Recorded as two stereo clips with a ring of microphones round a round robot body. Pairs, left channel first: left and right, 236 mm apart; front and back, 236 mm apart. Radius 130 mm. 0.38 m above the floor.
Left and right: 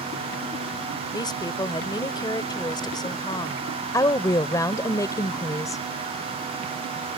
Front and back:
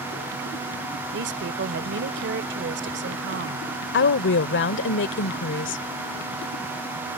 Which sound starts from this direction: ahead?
A woman speaking, at 3.9 s.